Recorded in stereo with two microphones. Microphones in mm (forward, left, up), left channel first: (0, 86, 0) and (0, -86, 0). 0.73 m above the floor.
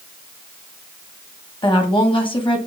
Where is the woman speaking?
30° left (ahead or behind), 1.2 m.